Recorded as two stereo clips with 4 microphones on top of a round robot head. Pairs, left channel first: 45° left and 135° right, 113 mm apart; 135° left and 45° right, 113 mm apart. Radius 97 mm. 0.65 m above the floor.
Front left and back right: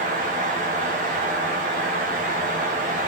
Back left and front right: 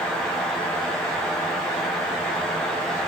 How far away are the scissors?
I don't hear scissors.